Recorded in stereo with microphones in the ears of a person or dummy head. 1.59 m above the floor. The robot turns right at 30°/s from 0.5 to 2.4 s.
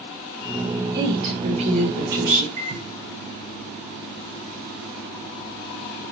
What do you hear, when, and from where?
0.9 s a woman speaking: 160° right, 3.5 m; by 2.5 s 120° right, 3.5 m
2.6 s a microwave: 40° right (ahead or behind), 4.5 m